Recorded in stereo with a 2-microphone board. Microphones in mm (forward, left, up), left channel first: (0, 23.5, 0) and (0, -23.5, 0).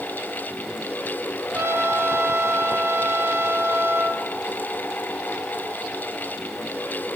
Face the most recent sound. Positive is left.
turn(degrees=-65)  # may be behind; listen again after turning